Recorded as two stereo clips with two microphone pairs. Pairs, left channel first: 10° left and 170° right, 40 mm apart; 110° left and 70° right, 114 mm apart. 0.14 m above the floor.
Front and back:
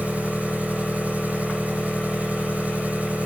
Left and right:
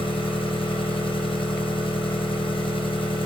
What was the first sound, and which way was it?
An engine running, 135° left.